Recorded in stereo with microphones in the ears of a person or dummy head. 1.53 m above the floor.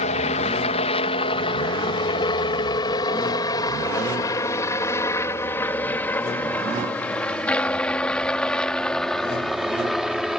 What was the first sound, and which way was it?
A helicopter, 40° left (ahead or behind).